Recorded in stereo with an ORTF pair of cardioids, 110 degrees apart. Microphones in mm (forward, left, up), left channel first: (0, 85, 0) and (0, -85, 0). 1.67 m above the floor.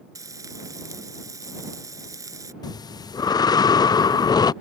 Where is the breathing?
25° left.